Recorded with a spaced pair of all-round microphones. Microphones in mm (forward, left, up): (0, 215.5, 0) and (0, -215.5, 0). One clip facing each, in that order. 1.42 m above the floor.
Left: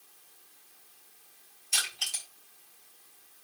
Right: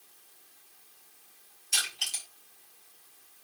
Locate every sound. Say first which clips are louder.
1.7 s crushing: even; 30° right (ahead or behind), 5 m